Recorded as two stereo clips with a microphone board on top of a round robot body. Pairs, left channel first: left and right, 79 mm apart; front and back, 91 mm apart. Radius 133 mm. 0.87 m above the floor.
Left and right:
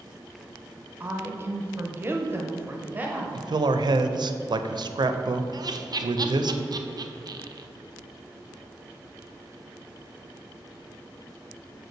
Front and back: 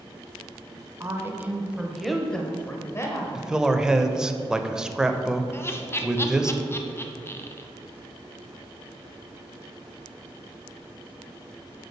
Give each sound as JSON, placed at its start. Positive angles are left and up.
{"t": 1.0, "sound": "a woman speaking", "azimuth_deg": -140, "distance_m": 1.1}
{"t": 3.4, "sound": "a man speaking", "azimuth_deg": -100, "distance_m": 0.6}
{"t": 5.5, "sound": "laughter", "azimuth_deg": -60, "distance_m": 0.8}